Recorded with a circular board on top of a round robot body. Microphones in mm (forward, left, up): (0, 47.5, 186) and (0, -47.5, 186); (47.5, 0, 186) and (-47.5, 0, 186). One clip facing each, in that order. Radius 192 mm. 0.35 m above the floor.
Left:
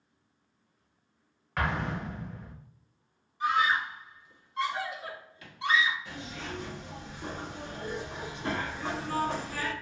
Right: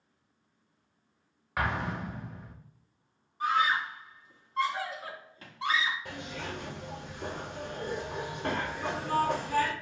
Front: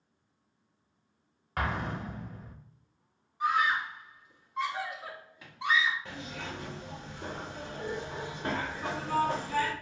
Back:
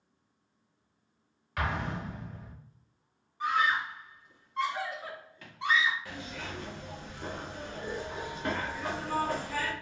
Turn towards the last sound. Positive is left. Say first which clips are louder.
# right 1 dB, even
turn(degrees=-60)